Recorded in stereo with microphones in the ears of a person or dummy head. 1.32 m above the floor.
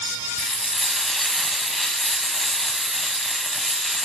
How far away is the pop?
No pop in this recording.